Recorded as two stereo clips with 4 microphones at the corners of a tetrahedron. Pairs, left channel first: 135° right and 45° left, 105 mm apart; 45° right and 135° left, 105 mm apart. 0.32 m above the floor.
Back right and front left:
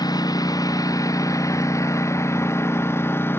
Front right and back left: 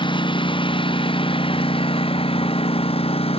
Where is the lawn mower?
85° right; by 3.4 s 65° right.